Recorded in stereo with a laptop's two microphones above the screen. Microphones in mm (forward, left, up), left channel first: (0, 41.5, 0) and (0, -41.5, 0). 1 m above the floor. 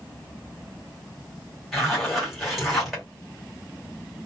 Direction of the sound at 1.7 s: Centre (ahead or behind).